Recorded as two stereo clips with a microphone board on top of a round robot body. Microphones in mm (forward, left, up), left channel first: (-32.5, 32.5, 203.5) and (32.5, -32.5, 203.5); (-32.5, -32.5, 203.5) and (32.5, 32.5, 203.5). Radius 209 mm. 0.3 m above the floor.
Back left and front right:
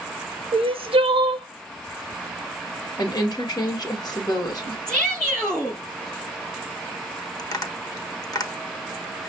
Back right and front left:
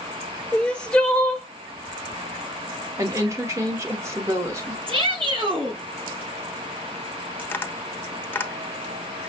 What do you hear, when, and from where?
0.5 s crying: 55° right, 0.5 m
3.0 s a woman speaking: 95° left, 2 m
4.9 s a shout: 55° left, 4.5 m
7.4 s tapping: 165° left, 1.2 m